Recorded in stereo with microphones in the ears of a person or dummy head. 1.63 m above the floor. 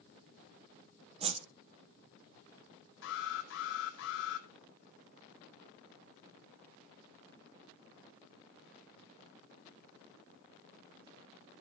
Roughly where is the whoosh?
Right.